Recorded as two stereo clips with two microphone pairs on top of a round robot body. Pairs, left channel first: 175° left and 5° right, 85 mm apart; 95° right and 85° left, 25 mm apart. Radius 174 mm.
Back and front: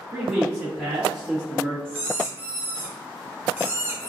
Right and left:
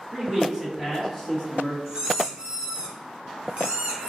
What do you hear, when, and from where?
0.1 s a man speaking: 70° left, 1.7 m; by 1.8 s 85° right, 1.7 m
1.9 s a squeak: 60° left, 1.3 m